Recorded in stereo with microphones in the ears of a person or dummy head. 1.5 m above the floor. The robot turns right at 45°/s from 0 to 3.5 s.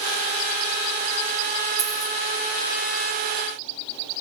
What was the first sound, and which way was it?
A dropped coin, 10° right (ahead or behind).